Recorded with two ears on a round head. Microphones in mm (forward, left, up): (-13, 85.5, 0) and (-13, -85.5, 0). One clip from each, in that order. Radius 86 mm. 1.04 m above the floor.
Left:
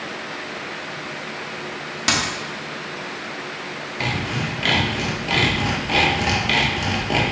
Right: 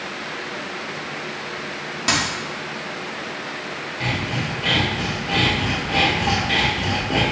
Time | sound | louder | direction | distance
2.1 | a dropped coin | even | 20° left (ahead or behind) | 0.8 m
4.0 | sawing | left 1 dB | 65° left (ahead or behind) | 1.0 m